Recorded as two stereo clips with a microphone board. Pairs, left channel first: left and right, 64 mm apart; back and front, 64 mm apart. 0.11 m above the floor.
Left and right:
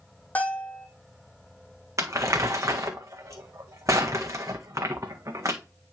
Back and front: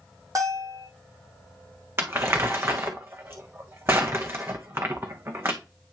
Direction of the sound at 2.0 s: 50° right.